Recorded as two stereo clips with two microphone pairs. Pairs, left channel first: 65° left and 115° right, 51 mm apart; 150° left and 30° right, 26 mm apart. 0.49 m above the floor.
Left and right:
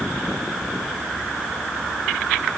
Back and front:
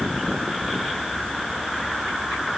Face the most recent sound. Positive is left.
No sound to turn to.